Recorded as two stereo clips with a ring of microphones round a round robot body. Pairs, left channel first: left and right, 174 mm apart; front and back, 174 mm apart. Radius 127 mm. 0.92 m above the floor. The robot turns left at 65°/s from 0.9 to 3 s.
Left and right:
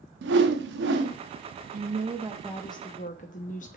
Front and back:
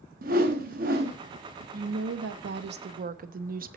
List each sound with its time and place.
0.2 s a whoosh: 125° right, 1.1 m; by 1.2 s 145° right, 1.1 m
1.7 s a woman speaking: 135° right, 0.9 m; by 3.8 s 145° left, 0.9 m